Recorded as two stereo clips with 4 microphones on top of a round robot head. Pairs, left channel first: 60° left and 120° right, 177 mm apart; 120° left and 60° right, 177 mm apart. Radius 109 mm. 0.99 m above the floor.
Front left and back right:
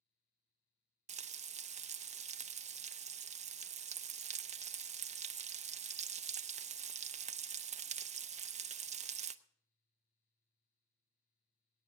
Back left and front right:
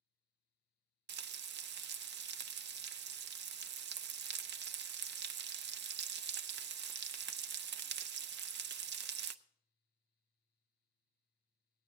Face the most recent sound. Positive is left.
turn(degrees=-70)